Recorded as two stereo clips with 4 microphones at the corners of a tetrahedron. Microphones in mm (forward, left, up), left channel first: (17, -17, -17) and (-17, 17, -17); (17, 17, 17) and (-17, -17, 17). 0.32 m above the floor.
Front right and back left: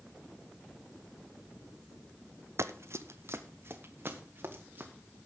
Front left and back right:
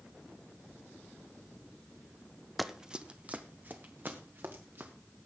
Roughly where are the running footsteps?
Behind left.